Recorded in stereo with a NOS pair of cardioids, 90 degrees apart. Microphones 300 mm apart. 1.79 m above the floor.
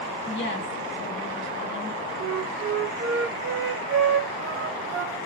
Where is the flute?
50° right, 0.8 m.